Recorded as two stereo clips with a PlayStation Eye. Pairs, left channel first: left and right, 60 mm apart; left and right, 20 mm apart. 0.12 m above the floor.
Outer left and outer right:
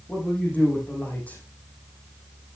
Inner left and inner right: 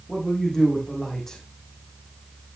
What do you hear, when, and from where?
0.1 s a man speaking: 25° left (ahead or behind), 4.5 m